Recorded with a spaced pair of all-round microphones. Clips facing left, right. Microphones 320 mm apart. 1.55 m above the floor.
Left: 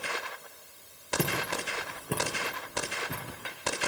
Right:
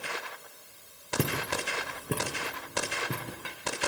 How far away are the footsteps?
About 4.5 m.